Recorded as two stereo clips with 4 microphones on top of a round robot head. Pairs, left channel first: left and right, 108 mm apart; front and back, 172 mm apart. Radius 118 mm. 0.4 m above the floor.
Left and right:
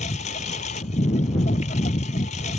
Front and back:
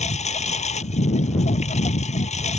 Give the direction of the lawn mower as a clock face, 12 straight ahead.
10 o'clock.